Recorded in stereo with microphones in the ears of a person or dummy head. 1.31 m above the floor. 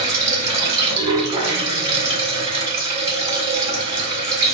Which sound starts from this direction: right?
Running water, at 0.0 s.